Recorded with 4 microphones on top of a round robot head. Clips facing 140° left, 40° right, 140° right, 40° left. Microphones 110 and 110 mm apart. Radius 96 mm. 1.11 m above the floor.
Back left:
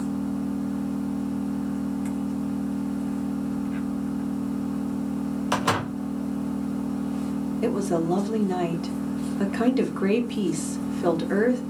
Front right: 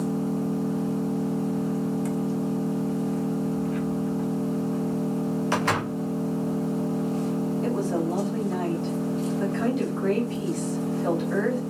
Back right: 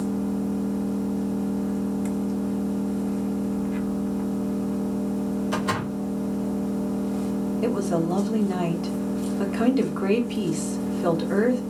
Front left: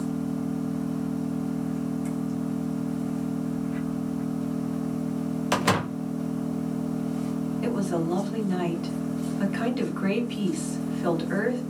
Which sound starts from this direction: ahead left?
A door slam, at 5.5 s.